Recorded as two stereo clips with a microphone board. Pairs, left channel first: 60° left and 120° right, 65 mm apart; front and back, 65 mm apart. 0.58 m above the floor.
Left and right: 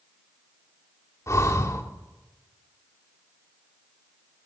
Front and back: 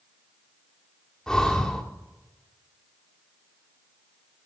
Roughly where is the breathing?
Left.